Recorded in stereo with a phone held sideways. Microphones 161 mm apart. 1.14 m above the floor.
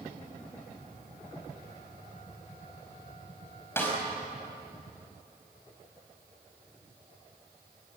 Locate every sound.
3.8 s a snare drum: 15° left (ahead or behind), 5.5 m